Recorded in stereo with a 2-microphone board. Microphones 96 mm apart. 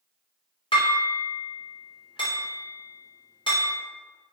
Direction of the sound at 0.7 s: 60° left (ahead or behind).